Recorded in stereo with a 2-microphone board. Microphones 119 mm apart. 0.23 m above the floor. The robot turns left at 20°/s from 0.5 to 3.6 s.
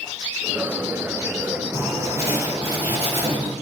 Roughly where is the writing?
Ahead right.